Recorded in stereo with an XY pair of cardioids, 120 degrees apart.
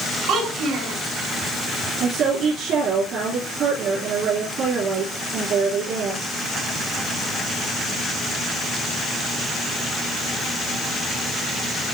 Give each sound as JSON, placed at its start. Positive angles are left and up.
{"t": 0.3, "sound": "a child speaking", "azimuth_deg": -70, "distance_m": 5.0}
{"t": 2.0, "sound": "a woman speaking", "azimuth_deg": -65, "distance_m": 4.0}